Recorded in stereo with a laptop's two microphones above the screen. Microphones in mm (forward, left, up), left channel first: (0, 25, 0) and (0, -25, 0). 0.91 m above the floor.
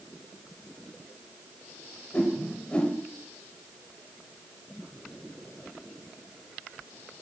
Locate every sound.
2.1 s a whoosh: 25° left (ahead or behind), 1.1 m